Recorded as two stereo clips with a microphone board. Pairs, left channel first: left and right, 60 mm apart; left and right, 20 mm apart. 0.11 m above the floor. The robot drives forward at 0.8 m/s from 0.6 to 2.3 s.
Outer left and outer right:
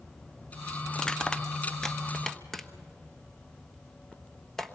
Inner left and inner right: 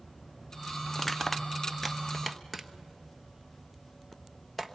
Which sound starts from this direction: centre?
Crushing, at 0.9 s.